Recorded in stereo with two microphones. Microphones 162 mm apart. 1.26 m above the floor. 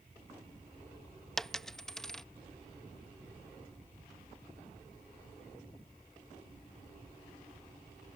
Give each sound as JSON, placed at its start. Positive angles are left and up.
{"t": 1.4, "sound": "a dropped coin", "side_deg": 5}